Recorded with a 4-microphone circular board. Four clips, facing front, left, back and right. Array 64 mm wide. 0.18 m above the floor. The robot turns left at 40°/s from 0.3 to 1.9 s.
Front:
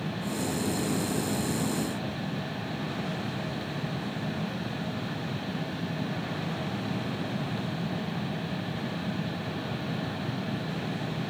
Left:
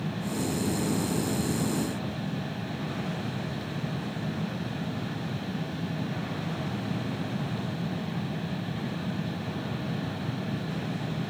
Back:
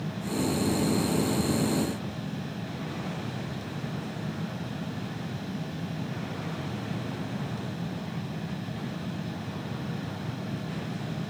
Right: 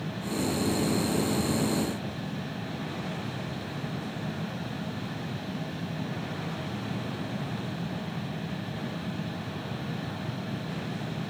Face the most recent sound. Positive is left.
No sound to turn to.